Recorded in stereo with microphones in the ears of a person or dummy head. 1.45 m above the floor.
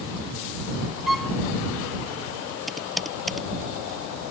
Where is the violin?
Centre (ahead or behind).